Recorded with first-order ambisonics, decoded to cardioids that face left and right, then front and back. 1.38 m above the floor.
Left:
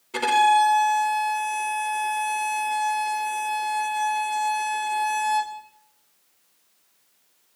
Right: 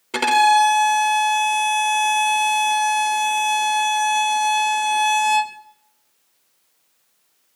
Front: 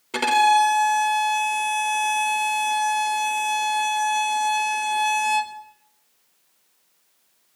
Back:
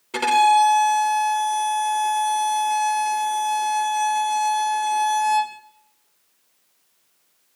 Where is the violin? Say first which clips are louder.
Right 3 dB, back 1 dB; 80° right, 0.7 m.